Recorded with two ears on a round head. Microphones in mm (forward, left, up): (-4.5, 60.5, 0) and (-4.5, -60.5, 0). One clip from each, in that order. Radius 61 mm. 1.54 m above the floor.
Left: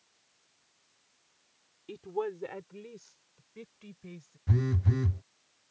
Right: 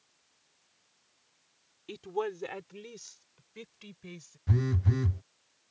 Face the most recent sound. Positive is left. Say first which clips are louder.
# even
turn(degrees=-5)  # may be behind; listen again after turning